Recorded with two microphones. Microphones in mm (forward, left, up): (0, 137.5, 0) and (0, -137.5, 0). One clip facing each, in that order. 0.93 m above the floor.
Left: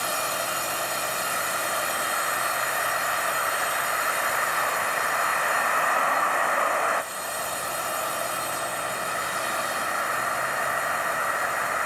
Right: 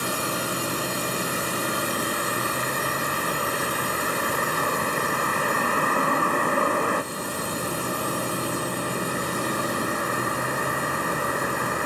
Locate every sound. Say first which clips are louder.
0.0 s a vehicle: right 4 dB; 40° right (ahead or behind); by 11.9 s 45° right (ahead or behind)